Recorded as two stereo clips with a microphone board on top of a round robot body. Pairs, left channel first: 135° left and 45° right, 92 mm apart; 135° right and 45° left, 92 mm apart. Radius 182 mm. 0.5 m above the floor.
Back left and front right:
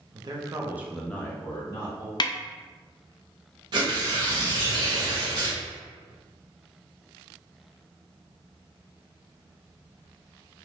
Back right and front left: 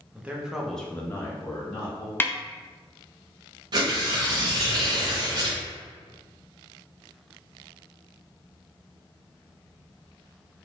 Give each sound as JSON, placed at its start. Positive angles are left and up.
{"t": 0.1, "sound": "a man speaking", "azimuth_deg": -25, "distance_m": 1.0}
{"t": 2.2, "sound": "a snare drum", "azimuth_deg": 160, "distance_m": 0.5}
{"t": 3.7, "sound": "tearing paper", "azimuth_deg": 0, "distance_m": 0.6}